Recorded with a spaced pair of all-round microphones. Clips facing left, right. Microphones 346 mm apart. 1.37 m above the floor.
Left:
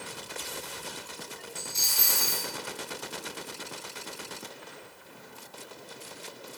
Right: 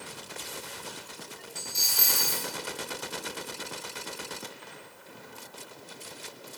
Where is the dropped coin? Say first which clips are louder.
Even; 30° left (ahead or behind), 0.9 m.